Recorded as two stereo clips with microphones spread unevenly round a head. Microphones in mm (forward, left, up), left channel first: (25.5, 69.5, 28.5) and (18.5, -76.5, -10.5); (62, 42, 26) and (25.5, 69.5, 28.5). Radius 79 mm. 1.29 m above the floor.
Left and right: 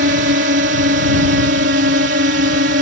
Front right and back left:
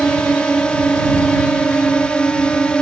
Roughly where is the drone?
Behind right.